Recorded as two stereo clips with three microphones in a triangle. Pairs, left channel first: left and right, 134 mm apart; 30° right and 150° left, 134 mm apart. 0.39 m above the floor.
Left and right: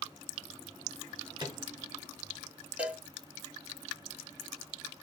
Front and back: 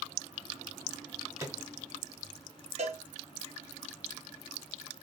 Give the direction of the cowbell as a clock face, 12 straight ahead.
6 o'clock.